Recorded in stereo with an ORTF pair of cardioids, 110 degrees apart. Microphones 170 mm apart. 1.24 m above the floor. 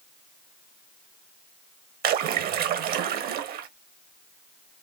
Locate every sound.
2.0 s a splash: 70° right, 1.0 m